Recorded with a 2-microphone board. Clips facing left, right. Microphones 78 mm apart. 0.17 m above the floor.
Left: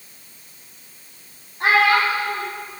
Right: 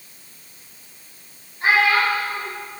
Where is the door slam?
I don't hear a door slam.